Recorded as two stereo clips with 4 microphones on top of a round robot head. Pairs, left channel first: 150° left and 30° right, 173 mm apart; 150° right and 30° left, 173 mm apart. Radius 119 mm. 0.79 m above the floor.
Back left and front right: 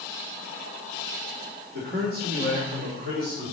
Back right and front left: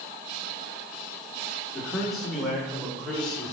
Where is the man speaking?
55° right, 3 m; by 3.5 s 60° right, 4.5 m.